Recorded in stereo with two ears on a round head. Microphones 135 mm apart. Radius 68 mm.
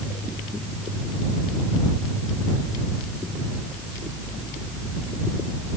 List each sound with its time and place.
Only background noise.